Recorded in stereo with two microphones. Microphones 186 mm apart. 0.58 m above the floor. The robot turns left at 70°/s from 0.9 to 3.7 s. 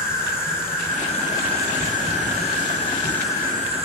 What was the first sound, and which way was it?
An insect, 50° left.